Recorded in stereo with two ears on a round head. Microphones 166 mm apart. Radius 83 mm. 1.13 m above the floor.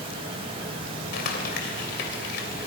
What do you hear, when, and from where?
1.1 s crumpling: 60° left (ahead or behind), 3 m